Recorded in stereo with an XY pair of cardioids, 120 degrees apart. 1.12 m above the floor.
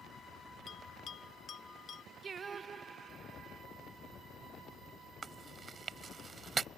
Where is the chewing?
35° right.